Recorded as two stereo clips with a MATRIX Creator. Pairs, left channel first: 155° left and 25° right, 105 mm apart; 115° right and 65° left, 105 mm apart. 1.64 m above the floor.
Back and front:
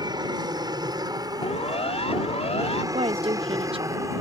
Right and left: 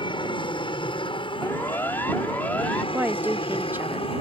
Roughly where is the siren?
Behind.